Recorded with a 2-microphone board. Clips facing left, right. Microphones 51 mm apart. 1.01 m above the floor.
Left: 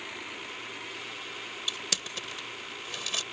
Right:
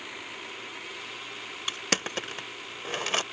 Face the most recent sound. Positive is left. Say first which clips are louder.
# right 7 dB
turn(degrees=-50)  # may be behind; listen again after turning